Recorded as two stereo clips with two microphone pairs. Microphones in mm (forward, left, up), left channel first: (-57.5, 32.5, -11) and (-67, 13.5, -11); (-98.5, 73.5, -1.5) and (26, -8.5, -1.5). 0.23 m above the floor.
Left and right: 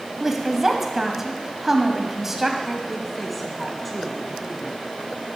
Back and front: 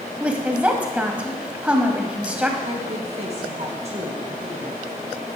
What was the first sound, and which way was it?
A woman speaking, 105° right.